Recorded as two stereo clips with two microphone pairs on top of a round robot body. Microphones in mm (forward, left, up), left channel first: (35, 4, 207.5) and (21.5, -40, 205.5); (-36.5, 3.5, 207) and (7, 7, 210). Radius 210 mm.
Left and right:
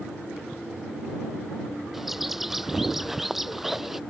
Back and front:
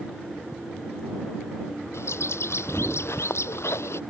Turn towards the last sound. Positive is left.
turn(degrees=170)